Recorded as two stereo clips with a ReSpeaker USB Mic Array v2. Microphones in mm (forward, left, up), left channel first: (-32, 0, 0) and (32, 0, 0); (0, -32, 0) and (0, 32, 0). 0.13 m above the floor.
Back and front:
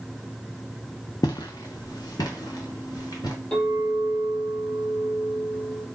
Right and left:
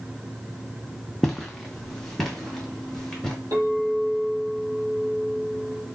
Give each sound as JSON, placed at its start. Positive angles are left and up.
{"t": 1.2, "sound": "footsteps", "azimuth_deg": -175, "distance_m": 0.6}
{"t": 3.5, "sound": "a clink", "azimuth_deg": 115, "distance_m": 2.5}